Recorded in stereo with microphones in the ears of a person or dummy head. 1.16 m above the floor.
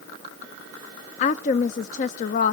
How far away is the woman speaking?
About 0.5 m.